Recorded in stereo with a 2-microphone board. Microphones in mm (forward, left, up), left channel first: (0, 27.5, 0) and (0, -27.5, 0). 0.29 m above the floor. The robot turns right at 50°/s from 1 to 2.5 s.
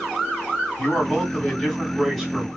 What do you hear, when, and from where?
0.8 s a man speaking: 15° left (ahead or behind), 1.6 m; by 2.5 s 15° right (ahead or behind), 1.6 m